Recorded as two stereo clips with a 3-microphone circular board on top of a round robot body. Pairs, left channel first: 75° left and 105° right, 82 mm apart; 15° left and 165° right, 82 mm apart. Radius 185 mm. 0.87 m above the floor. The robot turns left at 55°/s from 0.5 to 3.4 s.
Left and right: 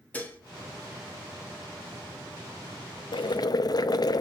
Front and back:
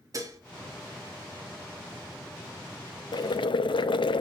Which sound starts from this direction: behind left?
Dishes clattering, at 0.1 s.